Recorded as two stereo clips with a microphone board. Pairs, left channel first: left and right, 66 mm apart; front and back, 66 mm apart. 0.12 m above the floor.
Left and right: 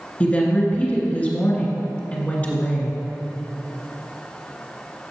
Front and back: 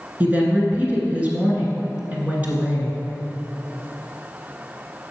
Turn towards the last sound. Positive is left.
turn(degrees=140)